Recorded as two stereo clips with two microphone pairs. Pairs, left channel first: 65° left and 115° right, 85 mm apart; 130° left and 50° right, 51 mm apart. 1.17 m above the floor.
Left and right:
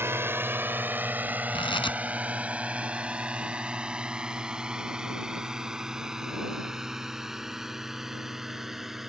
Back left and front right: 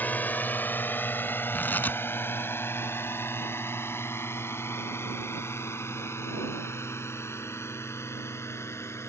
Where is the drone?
175° right; by 9.1 s 160° left.